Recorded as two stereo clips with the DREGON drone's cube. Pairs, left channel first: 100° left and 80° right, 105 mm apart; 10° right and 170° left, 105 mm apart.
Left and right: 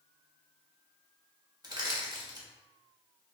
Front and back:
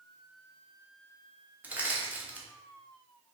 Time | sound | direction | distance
1.6 | crushing | 115° right | 0.8 m